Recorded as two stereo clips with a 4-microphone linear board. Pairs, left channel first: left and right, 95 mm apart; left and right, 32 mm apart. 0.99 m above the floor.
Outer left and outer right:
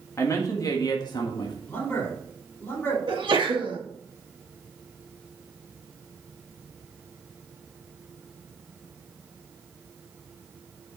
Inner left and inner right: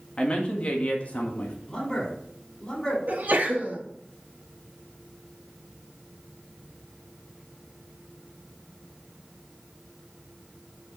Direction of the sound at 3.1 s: 65° right (ahead or behind).